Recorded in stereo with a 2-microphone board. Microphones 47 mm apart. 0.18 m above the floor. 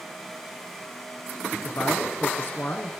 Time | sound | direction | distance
1.6 | a man speaking | 50° left (ahead or behind) | 2.5 m